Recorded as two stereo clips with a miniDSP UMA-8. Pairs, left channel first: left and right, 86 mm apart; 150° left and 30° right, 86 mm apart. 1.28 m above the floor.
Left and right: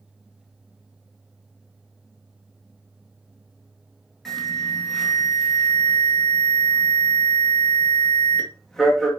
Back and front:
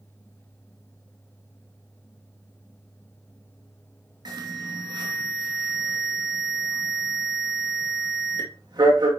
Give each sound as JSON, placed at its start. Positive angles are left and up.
{"t": 4.2, "sound": "an alarm", "azimuth_deg": 5, "distance_m": 2.0}